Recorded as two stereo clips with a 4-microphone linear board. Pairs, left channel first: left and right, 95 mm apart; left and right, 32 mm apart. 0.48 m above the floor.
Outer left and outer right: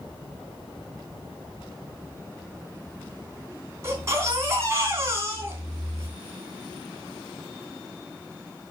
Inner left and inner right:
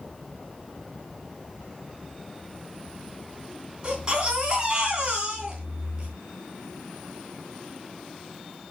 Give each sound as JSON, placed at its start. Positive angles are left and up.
{"t": 3.8, "sound": "a baby crying", "side_deg": -30, "distance_m": 3.0}